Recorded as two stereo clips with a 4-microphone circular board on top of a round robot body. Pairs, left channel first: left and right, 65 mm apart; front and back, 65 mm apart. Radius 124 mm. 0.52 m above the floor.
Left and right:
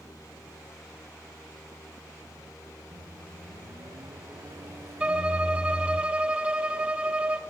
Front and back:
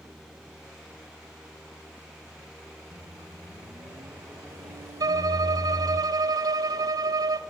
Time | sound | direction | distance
2.9 | a microwave | 135° right | 4.5 m
5.0 | a violin | 160° right | 1.9 m